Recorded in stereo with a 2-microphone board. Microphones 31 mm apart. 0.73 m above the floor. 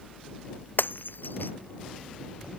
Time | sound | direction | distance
0.8 | breaking glass | 85° left | ?